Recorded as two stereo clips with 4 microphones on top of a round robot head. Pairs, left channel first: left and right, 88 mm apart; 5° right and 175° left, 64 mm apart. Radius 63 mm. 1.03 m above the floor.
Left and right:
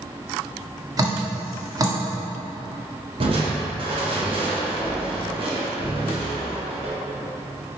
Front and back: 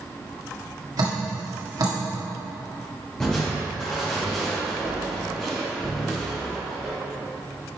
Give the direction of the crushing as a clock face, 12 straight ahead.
3 o'clock.